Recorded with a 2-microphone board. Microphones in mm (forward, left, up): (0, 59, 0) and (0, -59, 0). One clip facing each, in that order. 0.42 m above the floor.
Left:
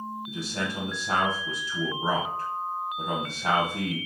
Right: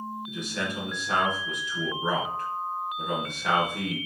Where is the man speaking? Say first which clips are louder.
Left 1 dB; 35° left (ahead or behind), 2.5 m.